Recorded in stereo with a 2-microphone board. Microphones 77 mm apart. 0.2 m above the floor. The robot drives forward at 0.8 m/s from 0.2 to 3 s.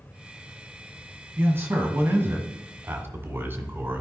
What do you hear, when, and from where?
1.4 s a man speaking: 30° right (ahead or behind), 1.6 m